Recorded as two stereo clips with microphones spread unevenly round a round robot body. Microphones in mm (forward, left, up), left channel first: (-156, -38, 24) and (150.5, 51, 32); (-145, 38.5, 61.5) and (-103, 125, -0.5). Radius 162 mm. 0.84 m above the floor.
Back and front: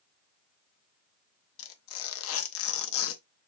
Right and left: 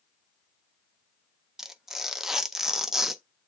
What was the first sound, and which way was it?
Tearing paper, 145° left.